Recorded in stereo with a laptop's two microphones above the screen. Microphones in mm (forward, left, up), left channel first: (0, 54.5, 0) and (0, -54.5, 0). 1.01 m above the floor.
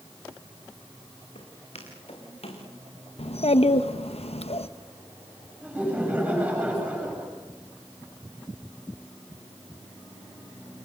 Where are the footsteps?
70° left (ahead or behind), 7 m; by 2.6 s 60° left (ahead or behind), 7 m.